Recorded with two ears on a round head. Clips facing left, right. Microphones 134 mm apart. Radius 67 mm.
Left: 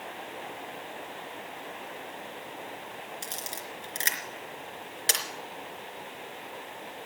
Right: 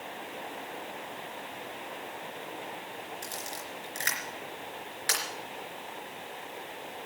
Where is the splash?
I don't hear a splash.